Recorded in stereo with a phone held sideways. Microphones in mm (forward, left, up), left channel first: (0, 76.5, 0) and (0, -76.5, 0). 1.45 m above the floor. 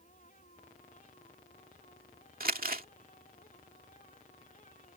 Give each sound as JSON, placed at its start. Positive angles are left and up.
{"t": 0.0, "sound": "a fan", "side_deg": 60}
{"t": 2.4, "sound": "crumpling", "side_deg": -70}